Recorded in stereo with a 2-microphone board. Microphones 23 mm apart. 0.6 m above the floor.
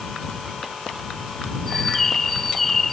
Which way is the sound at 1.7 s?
15° left (ahead or behind).